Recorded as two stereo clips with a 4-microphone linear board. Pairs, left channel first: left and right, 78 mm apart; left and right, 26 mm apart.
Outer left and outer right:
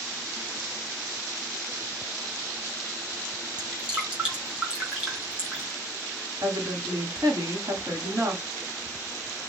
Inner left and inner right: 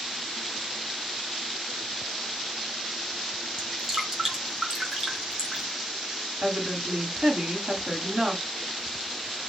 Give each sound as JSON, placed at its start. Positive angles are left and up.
{"t": 3.6, "sound": "dripping", "side_deg": -20, "distance_m": 3.0}
{"t": 6.4, "sound": "a woman speaking", "side_deg": -55, "distance_m": 1.4}